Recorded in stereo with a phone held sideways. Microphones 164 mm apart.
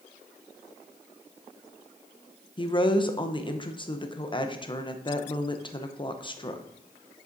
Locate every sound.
2.6 s a woman speaking: 30° left (ahead or behind), 0.6 m